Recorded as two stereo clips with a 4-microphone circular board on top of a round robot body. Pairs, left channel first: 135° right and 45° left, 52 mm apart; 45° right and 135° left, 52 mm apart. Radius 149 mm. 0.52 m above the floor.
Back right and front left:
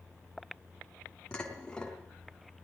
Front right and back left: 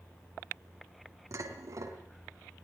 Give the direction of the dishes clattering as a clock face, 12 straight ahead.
7 o'clock.